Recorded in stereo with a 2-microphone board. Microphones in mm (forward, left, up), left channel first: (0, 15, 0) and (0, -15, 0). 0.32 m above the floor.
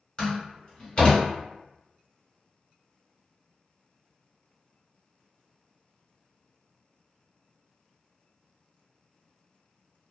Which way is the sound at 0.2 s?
35° left (ahead or behind).